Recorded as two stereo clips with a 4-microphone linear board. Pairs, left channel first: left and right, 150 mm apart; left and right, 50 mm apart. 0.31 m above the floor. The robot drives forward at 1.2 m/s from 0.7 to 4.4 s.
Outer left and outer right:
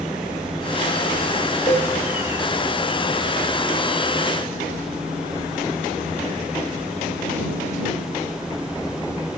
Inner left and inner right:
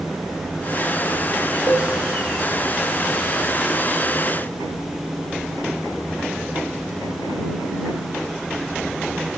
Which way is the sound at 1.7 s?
40° left (ahead or behind).